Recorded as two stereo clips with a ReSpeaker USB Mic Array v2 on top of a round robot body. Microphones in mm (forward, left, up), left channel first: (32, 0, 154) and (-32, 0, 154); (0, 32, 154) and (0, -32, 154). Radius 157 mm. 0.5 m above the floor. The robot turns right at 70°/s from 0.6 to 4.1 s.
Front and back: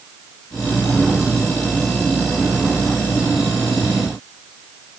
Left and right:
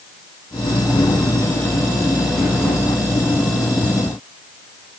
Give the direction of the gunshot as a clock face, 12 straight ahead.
No gunshot in this recording.